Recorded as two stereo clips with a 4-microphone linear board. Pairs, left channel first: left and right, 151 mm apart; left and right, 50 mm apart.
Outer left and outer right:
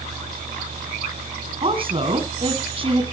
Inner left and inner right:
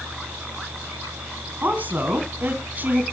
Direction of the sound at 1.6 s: 40° right (ahead or behind).